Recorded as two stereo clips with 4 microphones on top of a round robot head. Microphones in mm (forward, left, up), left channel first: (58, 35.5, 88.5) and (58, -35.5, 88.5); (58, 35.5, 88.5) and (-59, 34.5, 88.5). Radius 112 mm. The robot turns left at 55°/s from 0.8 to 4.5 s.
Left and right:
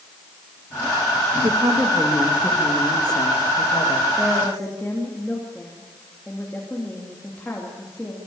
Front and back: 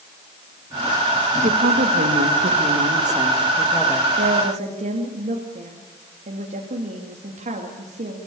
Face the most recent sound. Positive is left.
turn(degrees=170)